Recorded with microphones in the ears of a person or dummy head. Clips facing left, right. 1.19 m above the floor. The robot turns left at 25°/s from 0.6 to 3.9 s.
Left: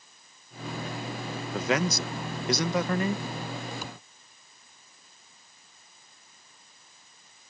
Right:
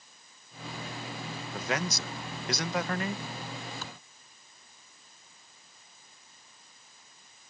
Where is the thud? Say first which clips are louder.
Left 4 dB; 10° left (ahead or behind).